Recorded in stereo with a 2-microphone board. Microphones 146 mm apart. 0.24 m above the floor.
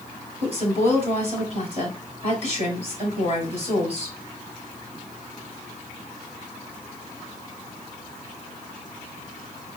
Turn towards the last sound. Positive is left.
turn(degrees=-45)  # may be behind; listen again after turning